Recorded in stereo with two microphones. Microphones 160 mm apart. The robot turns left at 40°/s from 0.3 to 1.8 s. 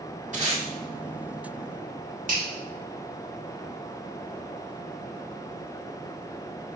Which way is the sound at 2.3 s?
55° right (ahead or behind).